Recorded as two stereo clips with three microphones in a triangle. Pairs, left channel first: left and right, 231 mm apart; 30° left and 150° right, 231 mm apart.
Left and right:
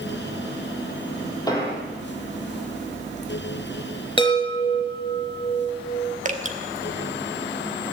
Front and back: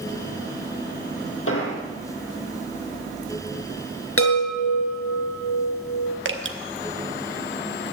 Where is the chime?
25° left, 4 m.